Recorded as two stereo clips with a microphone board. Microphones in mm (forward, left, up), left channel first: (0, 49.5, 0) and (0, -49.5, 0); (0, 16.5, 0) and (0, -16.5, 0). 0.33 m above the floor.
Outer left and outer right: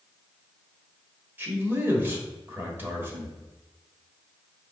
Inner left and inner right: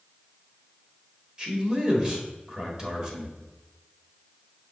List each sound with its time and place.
1.4 s a man speaking: 20° right (ahead or behind), 1.1 m